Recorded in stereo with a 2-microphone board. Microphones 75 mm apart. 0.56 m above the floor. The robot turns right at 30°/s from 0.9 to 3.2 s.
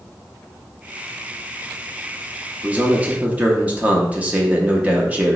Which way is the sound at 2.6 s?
20° right (ahead or behind).